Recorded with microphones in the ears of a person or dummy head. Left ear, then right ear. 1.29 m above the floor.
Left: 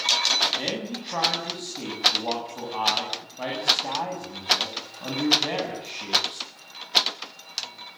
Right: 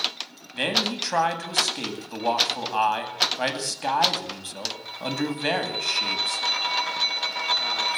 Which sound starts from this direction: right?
A man speaking, at 0.5 s.